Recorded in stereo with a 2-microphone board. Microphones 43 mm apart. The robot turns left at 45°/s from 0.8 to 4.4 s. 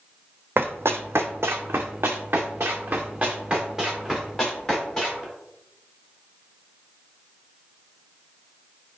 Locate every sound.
0.6 s running footsteps: 60° right (ahead or behind), 0.6 m; by 5.3 s 5° left (ahead or behind), 3 m